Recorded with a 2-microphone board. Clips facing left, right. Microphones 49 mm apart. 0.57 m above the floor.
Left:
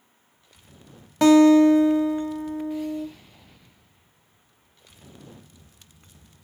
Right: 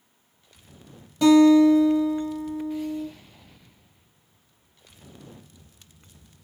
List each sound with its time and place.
1.2 s a guitar: 70° left (ahead or behind), 0.7 m